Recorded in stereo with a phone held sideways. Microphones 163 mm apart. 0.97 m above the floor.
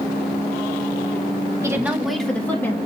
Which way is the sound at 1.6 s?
20° right (ahead or behind).